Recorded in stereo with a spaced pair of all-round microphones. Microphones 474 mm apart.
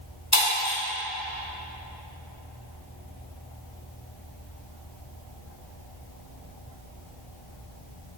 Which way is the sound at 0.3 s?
35° left (ahead or behind).